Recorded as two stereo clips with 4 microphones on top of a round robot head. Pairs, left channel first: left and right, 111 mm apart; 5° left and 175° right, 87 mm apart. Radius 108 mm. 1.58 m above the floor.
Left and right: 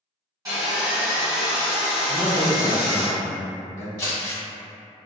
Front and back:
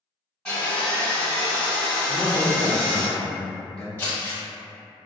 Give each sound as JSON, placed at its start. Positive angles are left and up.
{"t": 0.5, "sound": "sawing", "azimuth_deg": -60, "distance_m": 1.5}
{"t": 2.1, "sound": "a man speaking", "azimuth_deg": 85, "distance_m": 1.0}
{"t": 4.0, "sound": "crumpling", "azimuth_deg": 70, "distance_m": 1.4}